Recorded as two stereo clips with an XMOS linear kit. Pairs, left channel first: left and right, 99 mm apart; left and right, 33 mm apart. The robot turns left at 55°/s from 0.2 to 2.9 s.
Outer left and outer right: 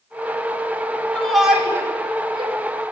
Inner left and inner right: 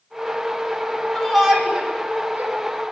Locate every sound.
1.1 s a shout: 10° left (ahead or behind), 8.5 m; by 2.5 s 65° right (ahead or behind), 8.5 m